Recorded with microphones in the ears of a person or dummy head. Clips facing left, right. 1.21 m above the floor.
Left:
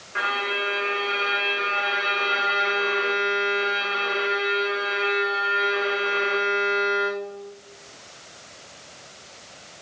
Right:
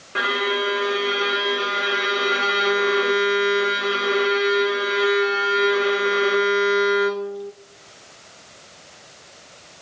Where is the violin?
55° right (ahead or behind), 0.8 m.